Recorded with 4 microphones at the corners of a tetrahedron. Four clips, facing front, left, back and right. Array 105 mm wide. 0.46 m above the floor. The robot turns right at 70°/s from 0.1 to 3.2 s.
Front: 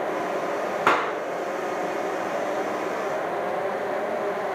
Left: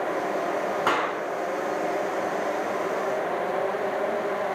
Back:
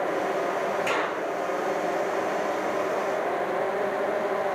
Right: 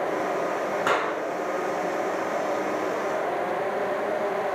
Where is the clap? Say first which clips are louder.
Even, front 5 dB; 15° left, 4.5 m; by 1.1 s 30° left, 4.5 m.